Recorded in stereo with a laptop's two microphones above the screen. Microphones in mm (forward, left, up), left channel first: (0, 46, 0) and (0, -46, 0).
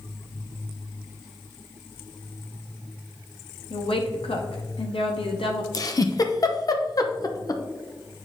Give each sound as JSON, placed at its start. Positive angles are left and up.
{"t": 3.7, "sound": "a woman speaking", "side_deg": 80, "distance_m": 1.3}
{"t": 5.7, "sound": "a giggle", "side_deg": 45, "distance_m": 0.8}